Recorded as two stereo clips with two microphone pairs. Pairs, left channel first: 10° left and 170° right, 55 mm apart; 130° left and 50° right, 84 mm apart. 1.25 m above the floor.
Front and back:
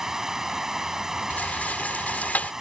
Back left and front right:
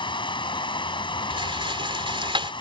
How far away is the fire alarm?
No fire alarm in this recording.